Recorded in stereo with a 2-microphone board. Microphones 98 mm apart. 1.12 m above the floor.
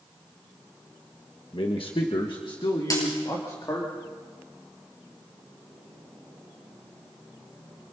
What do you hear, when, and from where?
1.5 s a man speaking: 65° left (ahead or behind), 1.5 m; by 3.9 s 35° left (ahead or behind), 3 m
2.9 s a dropped coin: 40° left (ahead or behind), 7.5 m